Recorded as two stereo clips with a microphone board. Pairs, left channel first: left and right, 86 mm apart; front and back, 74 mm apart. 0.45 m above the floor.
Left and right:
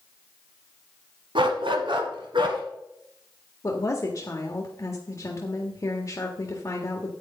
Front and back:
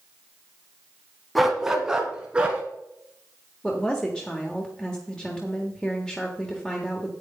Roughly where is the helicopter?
I don't hear a helicopter.